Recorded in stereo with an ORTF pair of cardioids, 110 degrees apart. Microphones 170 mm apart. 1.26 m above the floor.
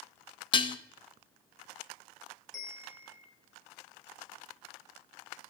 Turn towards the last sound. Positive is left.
turn(degrees=0)